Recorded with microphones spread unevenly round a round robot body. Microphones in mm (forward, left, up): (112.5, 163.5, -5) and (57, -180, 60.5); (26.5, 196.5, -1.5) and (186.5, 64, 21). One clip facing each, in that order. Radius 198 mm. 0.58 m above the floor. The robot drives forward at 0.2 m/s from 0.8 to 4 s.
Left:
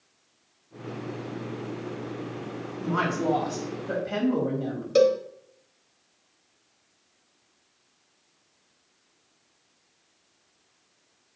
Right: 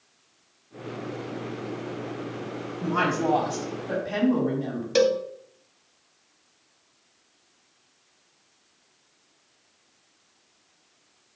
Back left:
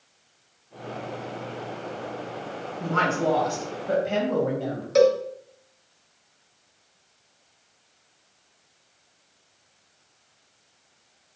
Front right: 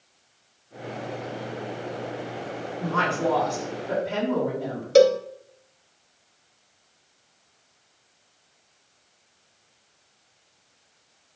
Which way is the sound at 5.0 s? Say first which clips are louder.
Left 1 dB, front right 2 dB; 15° right.